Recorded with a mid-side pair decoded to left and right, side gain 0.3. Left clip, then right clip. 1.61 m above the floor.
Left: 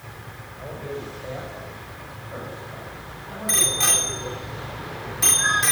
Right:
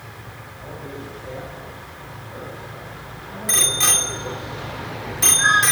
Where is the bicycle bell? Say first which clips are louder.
Right 3 dB; 25° right, 3 m.